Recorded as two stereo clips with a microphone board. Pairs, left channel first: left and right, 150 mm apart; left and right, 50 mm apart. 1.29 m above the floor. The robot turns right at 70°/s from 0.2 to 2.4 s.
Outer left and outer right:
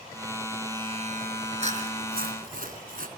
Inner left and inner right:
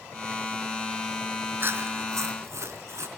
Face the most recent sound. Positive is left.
turn(degrees=-75)